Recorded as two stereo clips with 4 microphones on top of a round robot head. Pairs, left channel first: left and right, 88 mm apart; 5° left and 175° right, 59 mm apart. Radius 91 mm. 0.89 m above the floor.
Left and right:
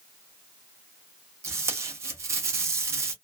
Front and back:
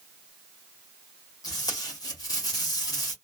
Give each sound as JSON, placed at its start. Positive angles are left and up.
{"t": 1.4, "sound": "tape being pulled", "azimuth_deg": -35, "distance_m": 0.5}